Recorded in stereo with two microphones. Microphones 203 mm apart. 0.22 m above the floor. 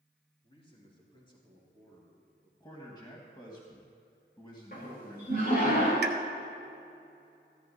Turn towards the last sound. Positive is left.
turn(degrees=-55)  # may be behind; listen again after turning